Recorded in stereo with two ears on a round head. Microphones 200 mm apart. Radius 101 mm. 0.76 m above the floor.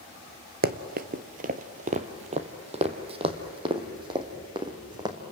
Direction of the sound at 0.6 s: 45° right (ahead or behind).